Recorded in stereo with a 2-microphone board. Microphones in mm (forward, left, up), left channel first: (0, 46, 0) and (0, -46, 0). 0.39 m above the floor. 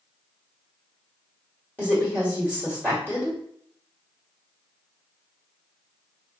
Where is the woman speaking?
15° left (ahead or behind), 1.3 m.